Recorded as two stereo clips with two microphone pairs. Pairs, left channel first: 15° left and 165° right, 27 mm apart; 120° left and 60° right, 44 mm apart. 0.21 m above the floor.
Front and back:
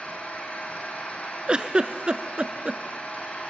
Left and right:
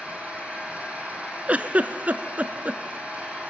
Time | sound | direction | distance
0.0 | an engine running | 5° right | 3 m
1.5 | a giggle | 115° right | 0.6 m